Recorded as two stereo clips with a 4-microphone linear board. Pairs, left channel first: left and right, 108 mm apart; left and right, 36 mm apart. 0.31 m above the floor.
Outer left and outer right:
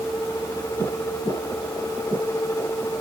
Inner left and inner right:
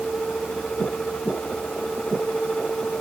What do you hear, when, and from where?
Only background noise.